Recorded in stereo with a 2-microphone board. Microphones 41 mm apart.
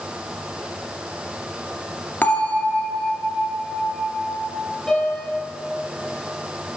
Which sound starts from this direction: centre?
A piano, at 4.9 s.